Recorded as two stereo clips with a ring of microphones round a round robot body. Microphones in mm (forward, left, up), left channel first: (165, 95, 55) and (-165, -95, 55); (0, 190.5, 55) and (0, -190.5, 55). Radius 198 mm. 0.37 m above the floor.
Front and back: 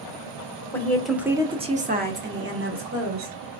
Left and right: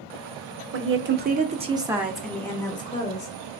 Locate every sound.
0.7 s a woman speaking: 50° right, 1.0 m; by 3.6 s 160° left, 1.5 m